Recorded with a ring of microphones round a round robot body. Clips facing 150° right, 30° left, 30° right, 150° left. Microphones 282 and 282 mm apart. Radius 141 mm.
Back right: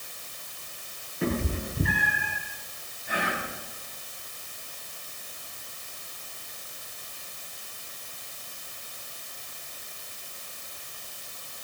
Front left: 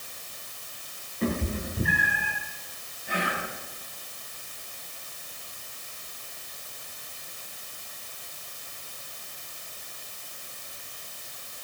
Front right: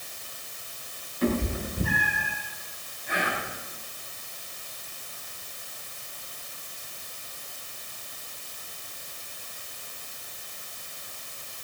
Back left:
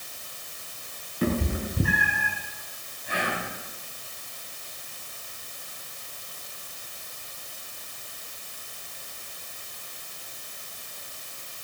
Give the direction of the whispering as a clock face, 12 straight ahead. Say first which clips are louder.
Even, even; 9 o'clock.